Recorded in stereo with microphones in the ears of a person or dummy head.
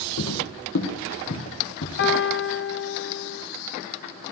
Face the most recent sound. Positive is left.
turn(degrees=50)  # may be behind; listen again after turning